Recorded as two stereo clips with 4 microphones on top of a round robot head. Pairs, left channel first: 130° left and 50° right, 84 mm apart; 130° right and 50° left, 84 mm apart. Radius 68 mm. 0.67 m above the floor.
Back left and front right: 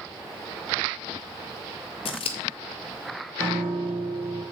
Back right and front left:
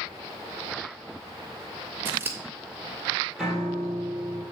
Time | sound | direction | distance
2.0 | scissors | 115° left | 0.8 m
3.4 | a piano | 35° right | 3 m